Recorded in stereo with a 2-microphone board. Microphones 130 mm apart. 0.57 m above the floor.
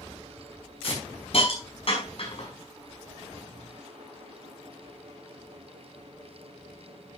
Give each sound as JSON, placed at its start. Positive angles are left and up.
{"t": 0.8, "sound": "a hiss", "side_deg": 50, "distance_m": 5.0}